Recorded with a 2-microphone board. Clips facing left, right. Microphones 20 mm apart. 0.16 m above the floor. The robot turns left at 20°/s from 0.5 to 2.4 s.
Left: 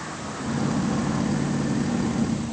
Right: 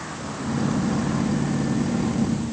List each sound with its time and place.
Only background noise.